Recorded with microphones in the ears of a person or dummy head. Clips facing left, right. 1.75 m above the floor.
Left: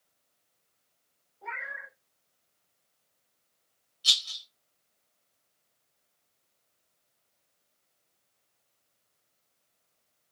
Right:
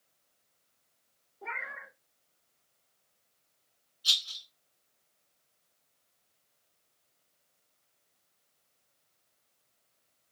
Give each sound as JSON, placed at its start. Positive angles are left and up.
{"t": 1.4, "sound": "a cat meowing", "side_deg": -25, "distance_m": 1.4}
{"t": 4.0, "sound": "a rattle", "side_deg": 30, "distance_m": 1.2}